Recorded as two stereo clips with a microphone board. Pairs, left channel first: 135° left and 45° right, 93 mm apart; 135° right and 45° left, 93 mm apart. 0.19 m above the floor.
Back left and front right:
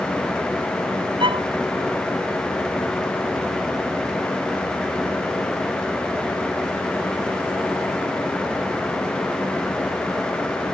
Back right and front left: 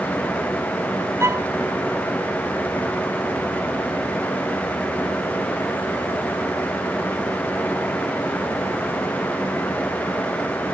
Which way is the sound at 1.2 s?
15° right.